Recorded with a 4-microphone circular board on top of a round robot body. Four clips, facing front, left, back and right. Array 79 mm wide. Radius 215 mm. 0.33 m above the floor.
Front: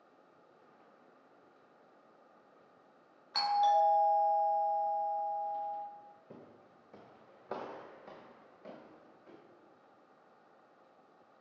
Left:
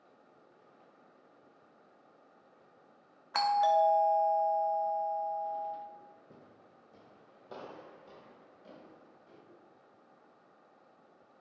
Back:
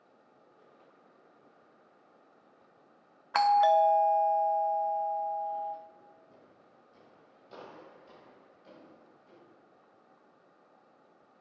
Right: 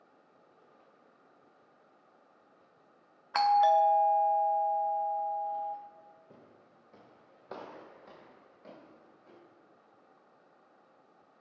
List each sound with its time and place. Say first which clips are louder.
3.3 s a doorbell: right 3 dB, back 5 dB; 165° right, 1.6 m
6.3 s footsteps: even, front 4 dB; 5° right, 0.6 m; by 9.4 s 30° right, 4.5 m